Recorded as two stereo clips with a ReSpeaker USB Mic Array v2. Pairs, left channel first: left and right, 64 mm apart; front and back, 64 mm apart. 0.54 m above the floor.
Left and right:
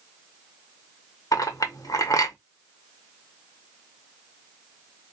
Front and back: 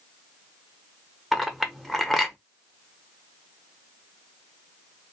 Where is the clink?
90° left, 0.7 m.